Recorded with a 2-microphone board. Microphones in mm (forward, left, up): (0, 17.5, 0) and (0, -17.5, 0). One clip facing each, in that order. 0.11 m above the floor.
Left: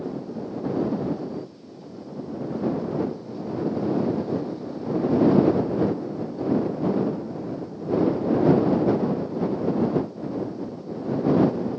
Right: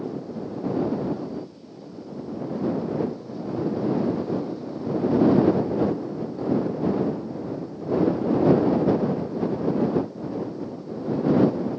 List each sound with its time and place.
Only background noise.